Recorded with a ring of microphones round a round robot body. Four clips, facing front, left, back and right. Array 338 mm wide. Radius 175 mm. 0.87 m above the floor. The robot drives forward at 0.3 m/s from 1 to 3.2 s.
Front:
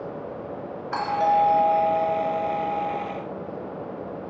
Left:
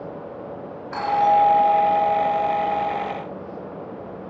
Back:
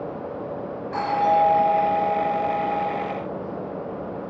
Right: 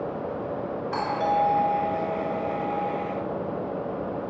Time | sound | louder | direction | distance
0.9 | a doorbell | left 7 dB, back 1 dB | 5° right | 6.5 m